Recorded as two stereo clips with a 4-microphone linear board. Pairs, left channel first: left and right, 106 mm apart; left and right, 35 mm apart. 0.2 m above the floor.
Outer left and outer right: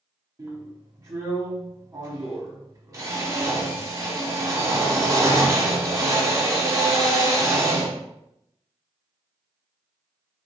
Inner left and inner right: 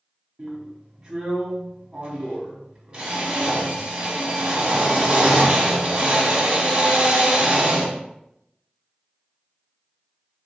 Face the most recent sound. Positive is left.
turn(degrees=-30)  # may be behind; listen again after turning